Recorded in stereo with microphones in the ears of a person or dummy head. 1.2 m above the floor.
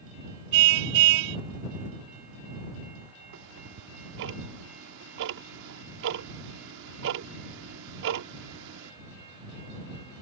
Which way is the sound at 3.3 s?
55° right (ahead or behind).